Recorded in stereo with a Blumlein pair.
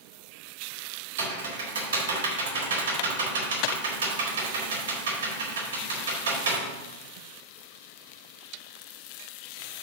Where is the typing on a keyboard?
65° right, 2.5 m.